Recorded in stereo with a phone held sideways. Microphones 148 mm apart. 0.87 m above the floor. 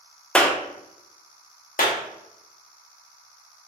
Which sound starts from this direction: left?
A clap, at 1.8 s.